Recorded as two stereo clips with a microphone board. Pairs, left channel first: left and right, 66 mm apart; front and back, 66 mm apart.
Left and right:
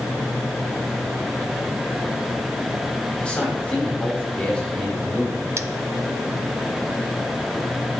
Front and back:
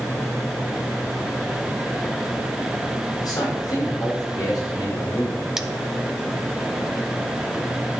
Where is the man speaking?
15° left, 5.5 m.